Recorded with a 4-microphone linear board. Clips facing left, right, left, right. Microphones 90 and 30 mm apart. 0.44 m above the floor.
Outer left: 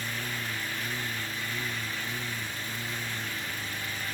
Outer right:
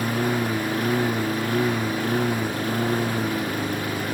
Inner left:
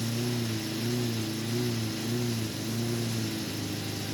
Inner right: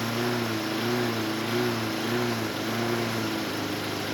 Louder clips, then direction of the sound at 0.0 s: Outer right 13 dB, inner right 5 dB; 55° right (ahead or behind).